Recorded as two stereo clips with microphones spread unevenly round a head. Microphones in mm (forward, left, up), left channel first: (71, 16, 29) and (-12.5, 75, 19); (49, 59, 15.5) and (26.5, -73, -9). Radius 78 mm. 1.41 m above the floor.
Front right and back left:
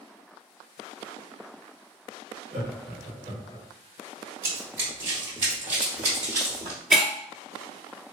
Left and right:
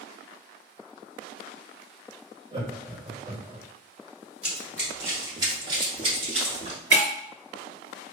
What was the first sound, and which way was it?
Laughter, 165° right.